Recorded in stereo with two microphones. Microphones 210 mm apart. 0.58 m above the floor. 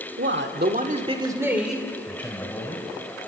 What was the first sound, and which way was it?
A man speaking, 65° right (ahead or behind).